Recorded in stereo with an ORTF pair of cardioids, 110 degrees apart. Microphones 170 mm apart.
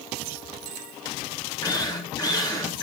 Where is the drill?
20° left, 4 m.